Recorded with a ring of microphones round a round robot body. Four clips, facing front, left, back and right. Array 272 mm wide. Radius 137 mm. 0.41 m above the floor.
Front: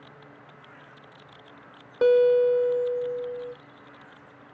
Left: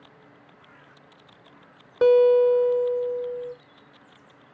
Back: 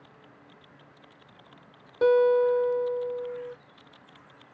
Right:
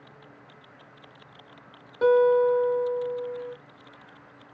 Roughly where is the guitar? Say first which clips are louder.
Left 3 dB, front 2 dB; ahead left.